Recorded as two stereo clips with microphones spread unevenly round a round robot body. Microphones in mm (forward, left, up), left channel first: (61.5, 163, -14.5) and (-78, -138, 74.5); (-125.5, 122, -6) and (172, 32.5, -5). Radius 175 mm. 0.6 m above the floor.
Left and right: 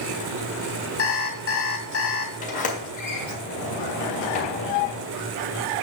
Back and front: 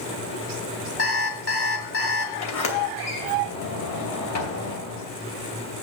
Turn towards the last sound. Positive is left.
turn(degrees=130)